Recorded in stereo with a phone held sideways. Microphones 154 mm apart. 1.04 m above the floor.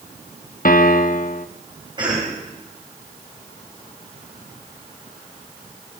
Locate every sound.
0.7 s a piano: 65° left (ahead or behind), 0.8 m
2.0 s a cough: 30° right (ahead or behind), 6 m